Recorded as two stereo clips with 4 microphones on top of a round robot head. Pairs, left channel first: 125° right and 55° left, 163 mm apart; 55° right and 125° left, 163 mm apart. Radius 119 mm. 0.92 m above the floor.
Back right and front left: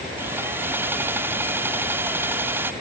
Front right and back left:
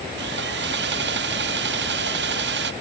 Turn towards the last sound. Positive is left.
turn(degrees=130)